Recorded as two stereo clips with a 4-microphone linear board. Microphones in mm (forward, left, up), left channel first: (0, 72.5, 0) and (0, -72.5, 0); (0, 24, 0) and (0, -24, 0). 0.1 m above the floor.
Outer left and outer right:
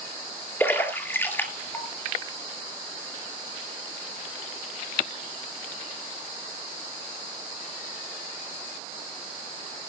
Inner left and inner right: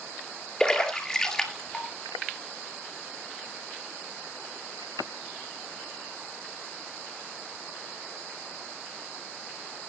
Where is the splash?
15° left (ahead or behind), 2 m.